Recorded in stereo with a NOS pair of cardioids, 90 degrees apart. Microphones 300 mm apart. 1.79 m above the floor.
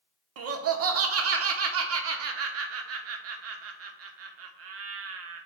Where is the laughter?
55° right, 0.9 m.